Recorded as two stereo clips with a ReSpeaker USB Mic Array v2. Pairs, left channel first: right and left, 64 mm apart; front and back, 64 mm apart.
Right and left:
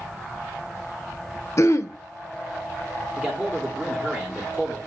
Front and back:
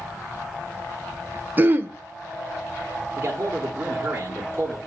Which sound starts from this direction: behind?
A man speaking, at 3.1 s.